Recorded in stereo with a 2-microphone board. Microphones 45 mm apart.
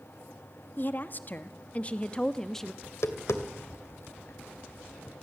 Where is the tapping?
80° left, 2 m.